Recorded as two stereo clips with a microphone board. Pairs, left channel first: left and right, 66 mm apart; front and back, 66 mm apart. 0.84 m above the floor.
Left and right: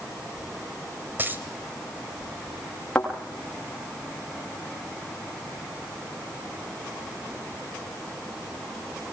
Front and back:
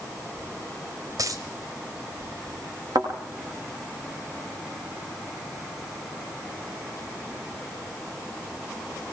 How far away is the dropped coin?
About 2 m.